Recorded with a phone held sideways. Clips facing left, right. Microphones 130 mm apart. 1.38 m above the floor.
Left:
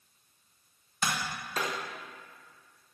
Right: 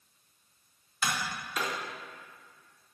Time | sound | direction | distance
1.0 | tapping | 35° left (ahead or behind) | 1.1 m